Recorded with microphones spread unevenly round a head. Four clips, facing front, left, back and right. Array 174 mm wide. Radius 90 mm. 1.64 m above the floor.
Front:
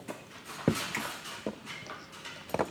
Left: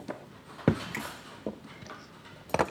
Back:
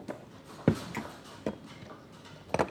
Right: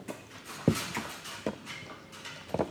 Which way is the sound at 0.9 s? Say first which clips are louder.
Right 1 dB, front 1 dB; 40° left.